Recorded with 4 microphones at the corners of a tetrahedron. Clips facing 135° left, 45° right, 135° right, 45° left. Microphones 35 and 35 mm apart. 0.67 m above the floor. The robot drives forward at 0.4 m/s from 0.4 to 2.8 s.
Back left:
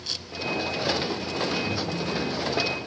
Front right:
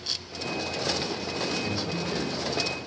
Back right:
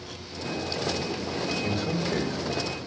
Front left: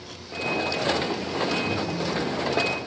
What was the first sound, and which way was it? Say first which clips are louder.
A man speaking: back left 2 dB, front left 1 dB; 125° right.